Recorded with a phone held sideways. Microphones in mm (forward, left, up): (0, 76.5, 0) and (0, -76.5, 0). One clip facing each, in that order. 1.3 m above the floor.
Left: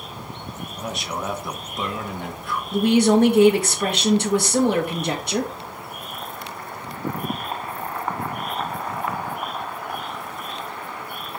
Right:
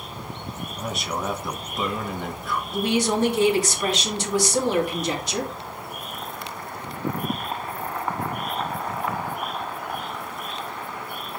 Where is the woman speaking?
60° left (ahead or behind), 2 m.